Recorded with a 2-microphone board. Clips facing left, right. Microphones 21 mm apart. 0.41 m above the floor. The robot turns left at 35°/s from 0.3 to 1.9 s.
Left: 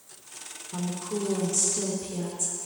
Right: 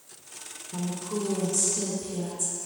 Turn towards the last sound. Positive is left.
turn(degrees=20)  # may be behind; listen again after turning